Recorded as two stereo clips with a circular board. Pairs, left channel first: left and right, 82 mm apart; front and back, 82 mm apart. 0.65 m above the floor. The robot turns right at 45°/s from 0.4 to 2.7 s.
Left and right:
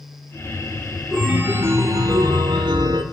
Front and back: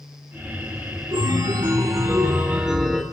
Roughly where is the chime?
Behind.